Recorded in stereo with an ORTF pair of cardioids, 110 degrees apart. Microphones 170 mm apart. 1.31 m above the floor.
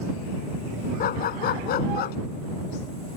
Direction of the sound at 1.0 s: 65° left.